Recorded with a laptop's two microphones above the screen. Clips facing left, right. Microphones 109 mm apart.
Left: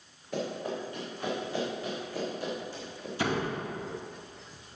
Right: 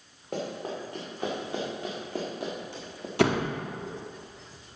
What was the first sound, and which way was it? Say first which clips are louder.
Running footsteps: even; 65° right (ahead or behind).